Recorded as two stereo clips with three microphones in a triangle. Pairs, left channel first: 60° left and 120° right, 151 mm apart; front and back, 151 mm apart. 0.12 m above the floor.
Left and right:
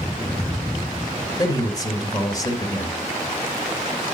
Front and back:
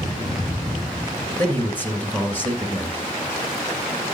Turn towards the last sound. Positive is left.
turn(degrees=60)